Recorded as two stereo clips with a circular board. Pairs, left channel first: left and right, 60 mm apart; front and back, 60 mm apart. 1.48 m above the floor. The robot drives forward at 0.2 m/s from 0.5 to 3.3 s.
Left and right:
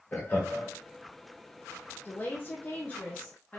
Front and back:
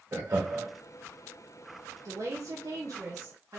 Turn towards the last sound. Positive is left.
turn(degrees=155)